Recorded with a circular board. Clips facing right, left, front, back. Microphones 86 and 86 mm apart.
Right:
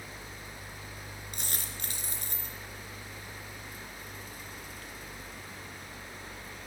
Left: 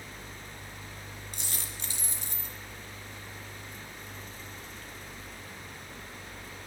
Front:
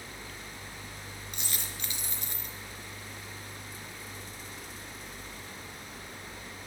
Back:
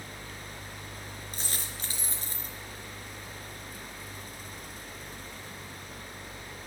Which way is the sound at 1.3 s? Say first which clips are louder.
Right 2 dB, back 1 dB; 130° right.